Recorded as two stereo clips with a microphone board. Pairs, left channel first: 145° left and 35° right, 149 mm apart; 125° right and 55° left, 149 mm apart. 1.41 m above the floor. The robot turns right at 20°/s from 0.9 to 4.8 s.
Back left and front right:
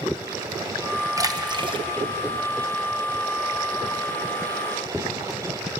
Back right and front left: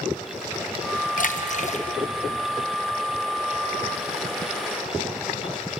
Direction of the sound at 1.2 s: 100° right.